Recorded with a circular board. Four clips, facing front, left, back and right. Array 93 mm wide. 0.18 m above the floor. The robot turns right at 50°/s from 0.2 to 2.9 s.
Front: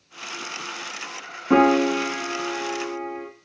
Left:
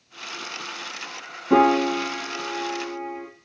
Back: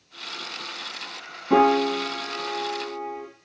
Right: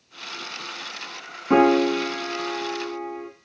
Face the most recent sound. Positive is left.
turn(degrees=20)